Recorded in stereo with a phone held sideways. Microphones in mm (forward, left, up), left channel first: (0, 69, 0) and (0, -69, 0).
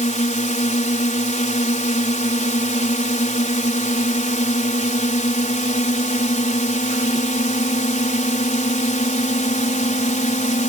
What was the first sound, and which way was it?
A drone, 65° left (ahead or behind).